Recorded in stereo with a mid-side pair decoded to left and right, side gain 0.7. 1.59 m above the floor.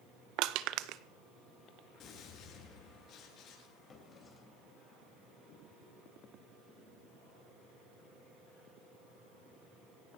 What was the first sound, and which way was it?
Crushing, 60° right.